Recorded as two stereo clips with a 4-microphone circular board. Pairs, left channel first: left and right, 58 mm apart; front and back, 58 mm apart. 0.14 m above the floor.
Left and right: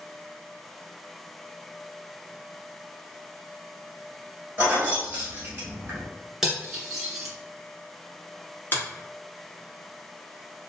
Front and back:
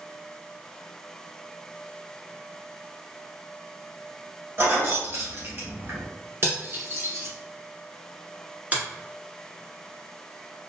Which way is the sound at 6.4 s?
170° right.